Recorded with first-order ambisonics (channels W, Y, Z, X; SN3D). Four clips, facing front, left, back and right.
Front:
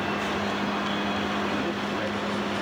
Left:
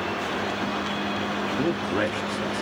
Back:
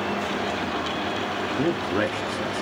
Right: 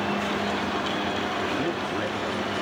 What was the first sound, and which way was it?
A man speaking, 165° left.